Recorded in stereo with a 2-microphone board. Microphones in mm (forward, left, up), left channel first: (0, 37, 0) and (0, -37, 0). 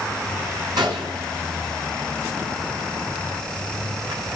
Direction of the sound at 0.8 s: 60° right (ahead or behind).